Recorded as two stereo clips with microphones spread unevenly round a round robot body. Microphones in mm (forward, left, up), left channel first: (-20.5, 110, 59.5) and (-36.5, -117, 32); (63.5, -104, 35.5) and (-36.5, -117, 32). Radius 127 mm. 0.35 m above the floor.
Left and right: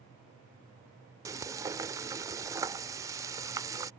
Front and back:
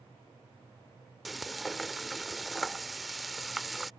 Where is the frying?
90° right.